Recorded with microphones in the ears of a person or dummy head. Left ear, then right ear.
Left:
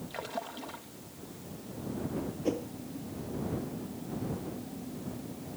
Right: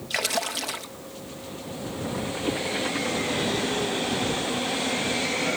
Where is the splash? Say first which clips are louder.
Right 13 dB; 75° right (ahead or behind).